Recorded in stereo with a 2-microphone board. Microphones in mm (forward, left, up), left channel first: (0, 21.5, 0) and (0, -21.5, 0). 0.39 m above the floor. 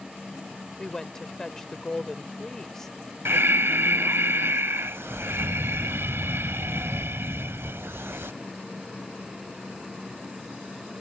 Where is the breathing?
75° right (ahead or behind).